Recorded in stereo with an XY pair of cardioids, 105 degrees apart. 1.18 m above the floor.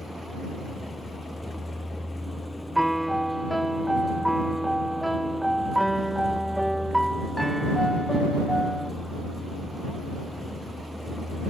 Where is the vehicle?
5° left.